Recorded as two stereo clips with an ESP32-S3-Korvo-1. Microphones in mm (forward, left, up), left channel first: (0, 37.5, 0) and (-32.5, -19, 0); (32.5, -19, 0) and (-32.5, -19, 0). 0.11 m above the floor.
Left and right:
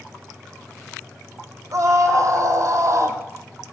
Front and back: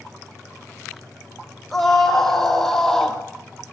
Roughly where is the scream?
Right.